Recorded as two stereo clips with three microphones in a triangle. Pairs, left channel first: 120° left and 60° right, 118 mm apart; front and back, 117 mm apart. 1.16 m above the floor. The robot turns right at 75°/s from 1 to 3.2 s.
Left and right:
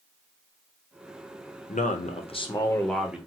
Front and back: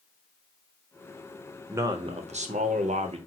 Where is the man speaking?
110° left, 0.5 m; by 3.2 s 140° right, 0.5 m.